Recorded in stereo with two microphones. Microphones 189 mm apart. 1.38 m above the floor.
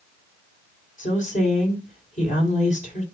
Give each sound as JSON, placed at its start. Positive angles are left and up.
{"t": 1.0, "sound": "a woman speaking", "side_deg": 40, "distance_m": 4.0}